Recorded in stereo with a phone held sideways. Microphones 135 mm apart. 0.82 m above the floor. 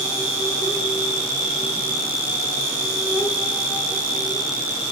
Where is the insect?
25° left (ahead or behind), 4 m.